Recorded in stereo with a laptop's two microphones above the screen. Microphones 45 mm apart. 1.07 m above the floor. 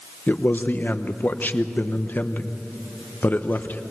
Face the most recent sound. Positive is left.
turn(degrees=45)  # may be behind; listen again after turning